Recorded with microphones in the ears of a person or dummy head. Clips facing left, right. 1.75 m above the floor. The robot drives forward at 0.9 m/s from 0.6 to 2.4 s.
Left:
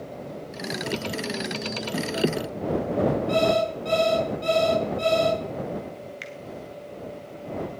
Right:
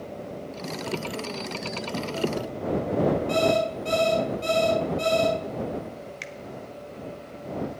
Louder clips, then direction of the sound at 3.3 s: Left 1 dB; 5° right (ahead or behind).